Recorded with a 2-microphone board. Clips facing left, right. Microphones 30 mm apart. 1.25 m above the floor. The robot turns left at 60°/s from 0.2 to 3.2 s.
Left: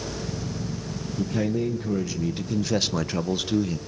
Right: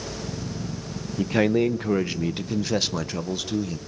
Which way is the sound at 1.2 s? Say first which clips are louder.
Right 5 dB; 75° right.